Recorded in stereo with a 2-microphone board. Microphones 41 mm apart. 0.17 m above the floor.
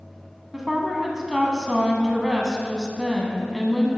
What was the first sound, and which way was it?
A woman speaking, 5° right (ahead or behind).